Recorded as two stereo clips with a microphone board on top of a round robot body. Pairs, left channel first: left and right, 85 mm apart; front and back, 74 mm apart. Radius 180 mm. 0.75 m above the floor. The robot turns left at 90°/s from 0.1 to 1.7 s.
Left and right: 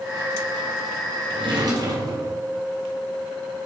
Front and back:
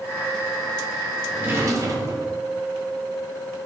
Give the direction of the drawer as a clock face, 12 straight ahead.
3 o'clock.